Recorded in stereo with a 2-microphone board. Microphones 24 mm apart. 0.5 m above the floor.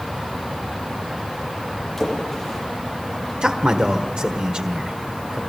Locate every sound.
2.0 s a splash: 15° left (ahead or behind), 8.5 m
3.4 s a man speaking: 55° right (ahead or behind), 1.4 m